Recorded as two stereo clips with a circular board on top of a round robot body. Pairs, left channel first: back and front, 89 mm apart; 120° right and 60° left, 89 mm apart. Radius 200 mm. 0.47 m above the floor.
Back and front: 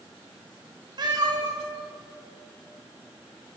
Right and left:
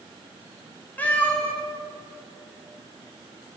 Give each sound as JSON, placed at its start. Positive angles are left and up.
{"t": 1.0, "sound": "a cat meowing", "azimuth_deg": -45, "distance_m": 1.1}